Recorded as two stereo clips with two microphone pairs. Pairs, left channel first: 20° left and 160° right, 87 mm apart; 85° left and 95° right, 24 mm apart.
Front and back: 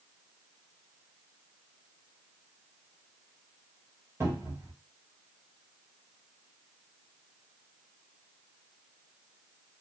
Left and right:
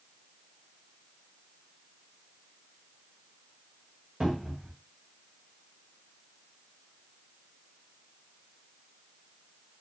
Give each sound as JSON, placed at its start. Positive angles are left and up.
{"t": 4.2, "sound": "a cupboard door", "azimuth_deg": -115, "distance_m": 1.5}